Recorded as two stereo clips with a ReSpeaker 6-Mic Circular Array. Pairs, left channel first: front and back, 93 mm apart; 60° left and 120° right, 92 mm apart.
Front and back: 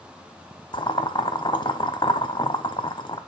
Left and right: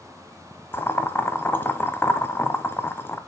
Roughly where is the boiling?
Ahead.